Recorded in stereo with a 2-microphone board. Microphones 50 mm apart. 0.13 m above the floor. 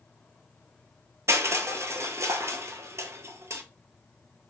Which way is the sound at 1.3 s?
65° right (ahead or behind).